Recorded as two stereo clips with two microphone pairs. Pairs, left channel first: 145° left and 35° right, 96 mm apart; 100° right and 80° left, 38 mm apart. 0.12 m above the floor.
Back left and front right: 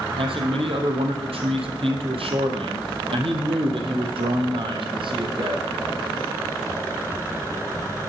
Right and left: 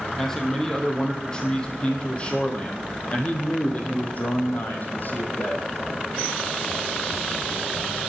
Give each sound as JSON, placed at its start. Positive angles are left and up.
{"t": 0.2, "sound": "a man speaking", "azimuth_deg": -20, "distance_m": 3.5}